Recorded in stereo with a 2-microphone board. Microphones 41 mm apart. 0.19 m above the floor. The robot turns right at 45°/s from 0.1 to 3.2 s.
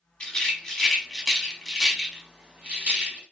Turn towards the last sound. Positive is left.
turn(degrees=-25)  # may be behind; listen again after turning